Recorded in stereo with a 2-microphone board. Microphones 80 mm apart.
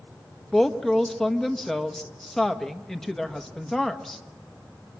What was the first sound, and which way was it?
A woman speaking, 5° left (ahead or behind).